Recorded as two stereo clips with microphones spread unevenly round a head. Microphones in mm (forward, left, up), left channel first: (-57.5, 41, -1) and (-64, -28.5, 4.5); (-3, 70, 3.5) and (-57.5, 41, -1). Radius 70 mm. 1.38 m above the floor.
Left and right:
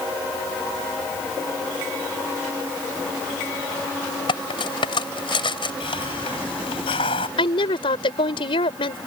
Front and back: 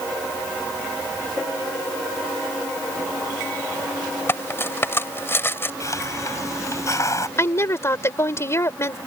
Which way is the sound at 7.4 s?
75° left.